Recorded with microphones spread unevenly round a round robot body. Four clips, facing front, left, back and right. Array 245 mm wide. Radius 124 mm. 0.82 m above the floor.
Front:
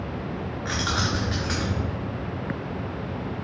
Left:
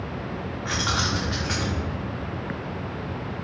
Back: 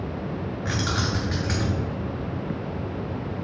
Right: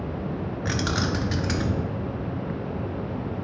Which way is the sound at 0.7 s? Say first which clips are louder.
Even, even; 110° right.